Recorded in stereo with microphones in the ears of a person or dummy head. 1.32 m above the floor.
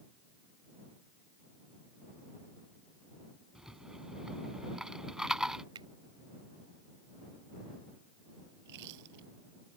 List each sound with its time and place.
3.5 s a rattle: 5° right (ahead or behind)
5.8 s a finger snap: 25° right (ahead or behind)
8.6 s chewing: 60° right (ahead or behind)